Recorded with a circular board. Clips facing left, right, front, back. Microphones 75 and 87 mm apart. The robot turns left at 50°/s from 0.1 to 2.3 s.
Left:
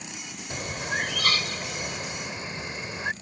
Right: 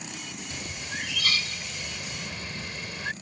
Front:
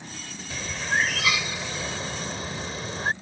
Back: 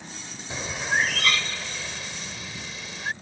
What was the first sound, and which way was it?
A bird, 120° left.